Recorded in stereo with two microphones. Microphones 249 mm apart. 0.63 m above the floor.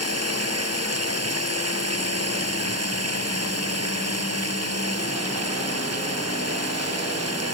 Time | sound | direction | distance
0.0 | running water | 85° right | ?